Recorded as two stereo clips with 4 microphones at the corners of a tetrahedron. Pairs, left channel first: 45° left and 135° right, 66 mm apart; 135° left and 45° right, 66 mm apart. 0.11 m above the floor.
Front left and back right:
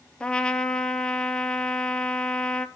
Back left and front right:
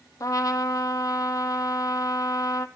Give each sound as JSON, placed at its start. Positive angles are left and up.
{"t": 0.2, "sound": "a trumpet", "azimuth_deg": 120, "distance_m": 0.8}